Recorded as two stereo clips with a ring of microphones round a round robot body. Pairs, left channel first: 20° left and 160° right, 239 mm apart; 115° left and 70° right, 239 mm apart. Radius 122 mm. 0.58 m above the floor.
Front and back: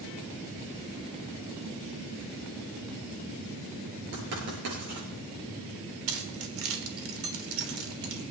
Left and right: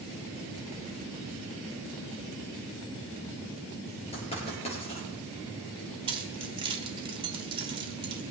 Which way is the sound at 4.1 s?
175° left.